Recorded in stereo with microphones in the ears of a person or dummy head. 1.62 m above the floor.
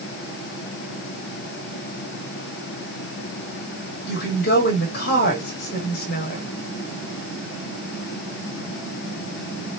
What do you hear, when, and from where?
4.1 s a woman speaking: 55° left (ahead or behind), 2.0 m